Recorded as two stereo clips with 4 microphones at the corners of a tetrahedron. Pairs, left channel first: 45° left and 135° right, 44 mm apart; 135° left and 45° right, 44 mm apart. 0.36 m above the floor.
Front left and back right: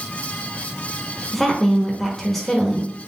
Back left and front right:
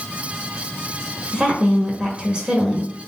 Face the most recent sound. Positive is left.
turn(degrees=-35)